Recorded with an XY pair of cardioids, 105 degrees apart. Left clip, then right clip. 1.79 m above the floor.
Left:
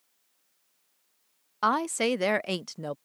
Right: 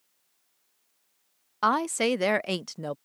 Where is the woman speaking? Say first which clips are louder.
Right 1 dB; 10° right.